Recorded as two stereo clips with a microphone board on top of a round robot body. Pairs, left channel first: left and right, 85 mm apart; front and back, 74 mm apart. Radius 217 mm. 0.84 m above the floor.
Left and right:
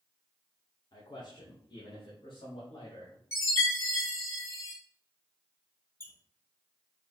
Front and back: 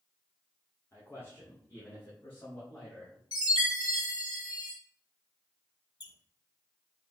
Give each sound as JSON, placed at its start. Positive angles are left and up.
{"t": 0.9, "sound": "a man speaking", "azimuth_deg": 55, "distance_m": 2.0}
{"t": 3.3, "sound": "a chime", "azimuth_deg": 30, "distance_m": 2.5}
{"t": 6.0, "sound": "a squeak", "azimuth_deg": 25, "distance_m": 1.3}